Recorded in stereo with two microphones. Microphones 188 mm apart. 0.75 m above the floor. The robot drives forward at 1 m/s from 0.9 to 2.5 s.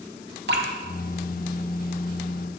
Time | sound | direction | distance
0.5 | dripping | 70° right (ahead or behind) | 1.3 m